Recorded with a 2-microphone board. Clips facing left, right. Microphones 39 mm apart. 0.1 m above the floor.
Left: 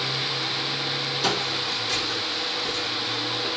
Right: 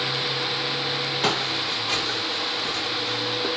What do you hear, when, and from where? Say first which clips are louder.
1.2 s footsteps: right 1 dB; 50° right (ahead or behind), 7 m; by 3.5 s 65° right (ahead or behind), 6.5 m